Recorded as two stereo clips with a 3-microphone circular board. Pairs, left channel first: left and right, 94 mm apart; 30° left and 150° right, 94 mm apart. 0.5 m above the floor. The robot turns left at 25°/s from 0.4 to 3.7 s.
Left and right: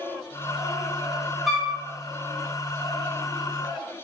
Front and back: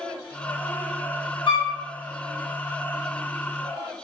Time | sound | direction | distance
1.5 | a flute | straight ahead | 0.7 m